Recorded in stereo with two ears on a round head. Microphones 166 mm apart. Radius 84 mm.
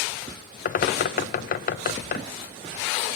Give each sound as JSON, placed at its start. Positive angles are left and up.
{"t": 0.7, "sound": "a bird", "side_deg": 45, "distance_m": 0.6}